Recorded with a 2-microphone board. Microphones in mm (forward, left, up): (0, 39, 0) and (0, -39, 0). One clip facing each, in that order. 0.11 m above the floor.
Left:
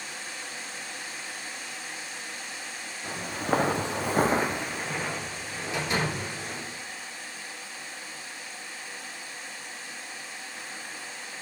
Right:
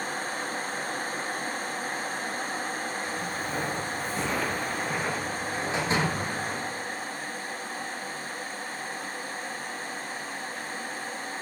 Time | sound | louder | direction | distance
3.0 | footsteps | left 2 dB | 50° left (ahead or behind) | 1.6 m
5.7 | a door slam | right 1 dB | 30° right (ahead or behind) | 4.5 m